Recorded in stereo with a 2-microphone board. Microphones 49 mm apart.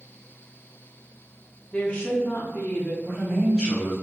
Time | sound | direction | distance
1.7 | a woman speaking | 25° left (ahead or behind) | 0.6 m
3.0 | a man speaking | 5° left (ahead or behind) | 1.2 m